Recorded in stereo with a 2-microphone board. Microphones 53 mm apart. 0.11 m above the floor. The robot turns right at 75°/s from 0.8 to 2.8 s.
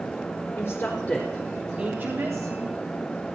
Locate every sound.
0.6 s a woman speaking: 40° left (ahead or behind), 4.5 m; by 2.5 s 75° right (ahead or behind), 4.5 m